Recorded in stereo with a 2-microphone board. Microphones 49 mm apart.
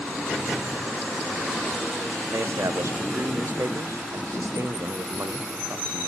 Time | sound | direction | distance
2.3 | a man speaking | 85° right | 0.6 m